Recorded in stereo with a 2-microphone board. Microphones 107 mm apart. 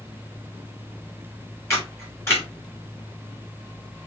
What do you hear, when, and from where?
1.7 s a camera shutter: 25° left (ahead or behind), 2.5 m